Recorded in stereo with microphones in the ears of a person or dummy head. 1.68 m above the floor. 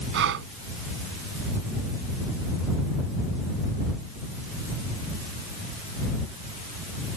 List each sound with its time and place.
0.1 s breathing: 70° right (ahead or behind)